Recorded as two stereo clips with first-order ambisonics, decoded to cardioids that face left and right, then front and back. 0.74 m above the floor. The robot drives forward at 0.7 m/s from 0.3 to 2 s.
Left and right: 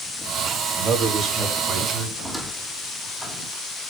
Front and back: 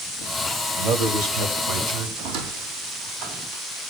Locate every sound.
0.8 s a man speaking: 160° right, 3 m; by 2.1 s 165° right, 3.5 m
2.2 s a squeak: straight behind, 1.1 m